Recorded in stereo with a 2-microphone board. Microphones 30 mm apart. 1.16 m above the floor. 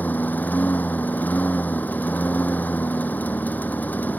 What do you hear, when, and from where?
0.0 s a lawn mower: 65° left (ahead or behind)